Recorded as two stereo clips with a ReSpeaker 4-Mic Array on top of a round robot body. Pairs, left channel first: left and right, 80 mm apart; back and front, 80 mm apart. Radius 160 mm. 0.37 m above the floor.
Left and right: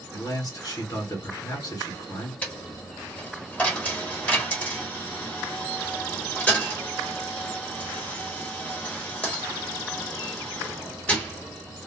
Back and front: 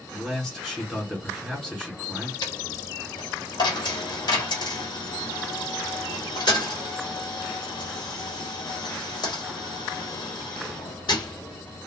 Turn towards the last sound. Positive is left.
turn(degrees=160)